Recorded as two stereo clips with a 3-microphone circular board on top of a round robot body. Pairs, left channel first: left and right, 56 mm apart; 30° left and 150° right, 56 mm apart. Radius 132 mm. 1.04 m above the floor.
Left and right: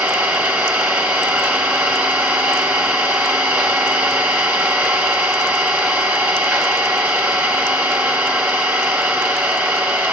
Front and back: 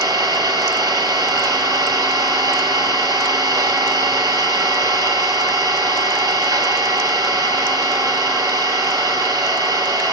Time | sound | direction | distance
0.0 | an engine running | 160° right | 3 m